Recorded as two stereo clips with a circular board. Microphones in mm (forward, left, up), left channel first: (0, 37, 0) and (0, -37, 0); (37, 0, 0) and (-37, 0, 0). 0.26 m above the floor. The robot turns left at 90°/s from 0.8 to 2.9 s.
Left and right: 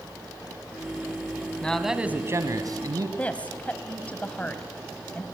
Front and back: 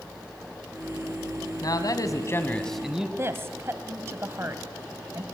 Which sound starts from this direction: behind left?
A woman speaking, at 3.2 s.